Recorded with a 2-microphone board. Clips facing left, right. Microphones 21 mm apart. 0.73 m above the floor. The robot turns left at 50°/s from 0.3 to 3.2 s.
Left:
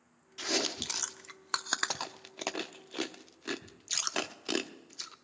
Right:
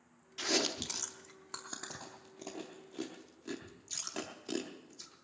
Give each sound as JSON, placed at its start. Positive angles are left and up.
{"t": 0.4, "sound": "chewing", "side_deg": 0, "distance_m": 0.6}